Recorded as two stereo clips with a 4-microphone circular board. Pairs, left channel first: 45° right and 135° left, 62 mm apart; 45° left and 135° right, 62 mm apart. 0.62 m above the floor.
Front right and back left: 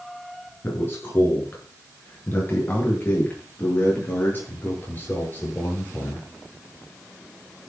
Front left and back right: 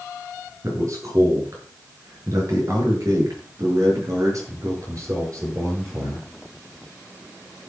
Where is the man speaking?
100° right, 7 m; by 6.2 s 105° right, 10.5 m.